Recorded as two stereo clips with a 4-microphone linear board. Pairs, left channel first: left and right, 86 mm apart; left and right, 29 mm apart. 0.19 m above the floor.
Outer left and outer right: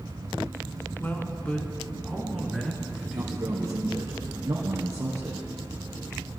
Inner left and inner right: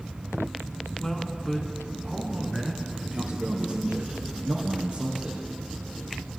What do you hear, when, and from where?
1.0 s a man speaking: 25° left (ahead or behind), 2.5 m; by 3.9 s 10° right (ahead or behind), 4 m
3.1 s a man speaking: 40° right (ahead or behind), 2.5 m